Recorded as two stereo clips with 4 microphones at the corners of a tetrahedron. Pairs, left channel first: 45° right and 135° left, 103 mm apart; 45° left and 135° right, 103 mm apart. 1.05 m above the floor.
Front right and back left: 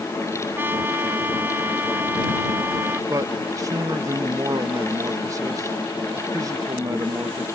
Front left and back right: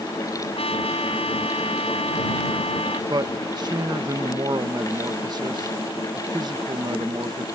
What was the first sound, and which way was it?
A trumpet, 65° left.